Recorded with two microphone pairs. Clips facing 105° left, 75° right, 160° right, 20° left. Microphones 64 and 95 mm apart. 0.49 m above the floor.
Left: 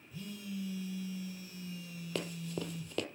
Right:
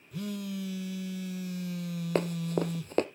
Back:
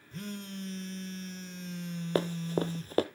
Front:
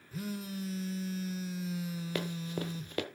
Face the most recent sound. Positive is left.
turn(degrees=-115)